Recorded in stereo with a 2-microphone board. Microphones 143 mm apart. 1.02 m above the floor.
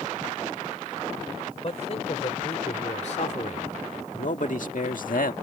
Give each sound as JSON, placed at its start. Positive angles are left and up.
{"t": 1.6, "sound": "a man speaking", "side_deg": 45}